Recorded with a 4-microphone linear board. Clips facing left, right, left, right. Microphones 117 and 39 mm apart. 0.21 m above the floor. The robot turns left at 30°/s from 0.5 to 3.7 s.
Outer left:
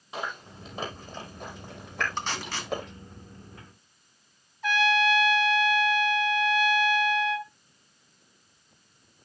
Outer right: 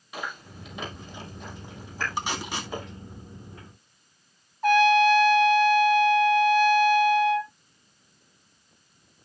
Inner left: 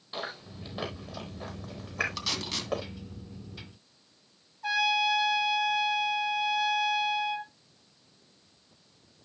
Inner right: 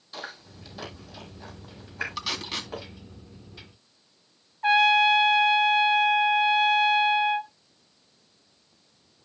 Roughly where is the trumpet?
Right.